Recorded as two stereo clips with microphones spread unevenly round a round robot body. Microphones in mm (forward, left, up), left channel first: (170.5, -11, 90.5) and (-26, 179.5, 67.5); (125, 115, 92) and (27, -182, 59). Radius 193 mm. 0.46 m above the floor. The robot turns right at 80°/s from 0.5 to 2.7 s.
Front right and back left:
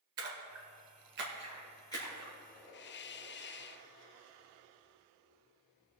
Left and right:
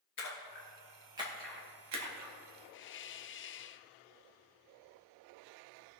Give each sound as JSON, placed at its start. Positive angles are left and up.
{"t": 0.2, "sound": "a splash", "azimuth_deg": 125, "distance_m": 2.0}
{"t": 2.7, "sound": "a hiss", "azimuth_deg": 15, "distance_m": 0.5}